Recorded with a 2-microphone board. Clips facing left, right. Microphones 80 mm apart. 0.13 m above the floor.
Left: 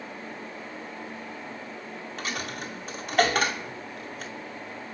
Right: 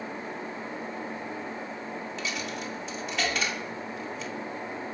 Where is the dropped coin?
50° left (ahead or behind), 0.7 m.